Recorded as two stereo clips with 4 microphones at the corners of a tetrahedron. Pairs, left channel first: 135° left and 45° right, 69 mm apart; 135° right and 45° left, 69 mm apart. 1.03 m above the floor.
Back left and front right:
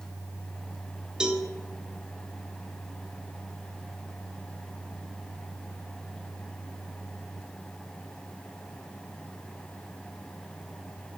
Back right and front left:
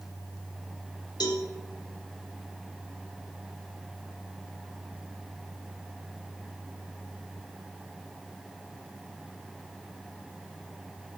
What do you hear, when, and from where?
1.2 s a cowbell: 125° right, 1.4 m